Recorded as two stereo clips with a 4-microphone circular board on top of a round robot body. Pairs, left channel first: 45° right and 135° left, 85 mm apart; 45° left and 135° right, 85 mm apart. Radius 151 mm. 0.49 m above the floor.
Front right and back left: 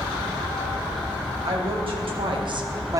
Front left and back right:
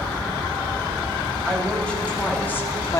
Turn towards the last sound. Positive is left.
turn(degrees=90)